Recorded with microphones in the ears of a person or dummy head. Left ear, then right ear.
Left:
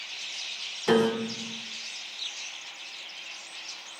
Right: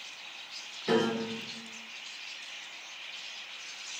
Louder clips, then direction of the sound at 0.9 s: Left 4 dB; 35° left (ahead or behind).